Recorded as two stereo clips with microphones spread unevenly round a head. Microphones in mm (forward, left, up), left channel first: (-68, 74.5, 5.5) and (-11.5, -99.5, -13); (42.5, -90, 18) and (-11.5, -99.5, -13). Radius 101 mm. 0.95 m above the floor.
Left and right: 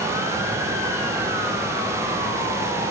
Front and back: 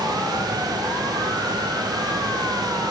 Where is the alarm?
I don't hear an alarm.